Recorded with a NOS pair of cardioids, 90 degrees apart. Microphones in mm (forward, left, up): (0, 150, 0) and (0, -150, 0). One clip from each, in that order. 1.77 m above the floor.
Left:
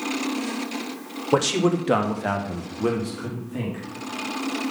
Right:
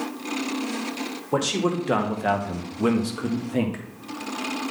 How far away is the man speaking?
About 1.5 m.